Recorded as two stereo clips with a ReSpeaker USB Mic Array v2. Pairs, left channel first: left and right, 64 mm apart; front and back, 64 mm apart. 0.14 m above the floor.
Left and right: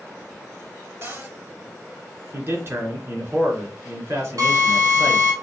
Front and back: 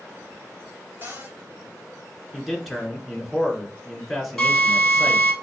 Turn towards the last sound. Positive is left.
turn(degrees=-85)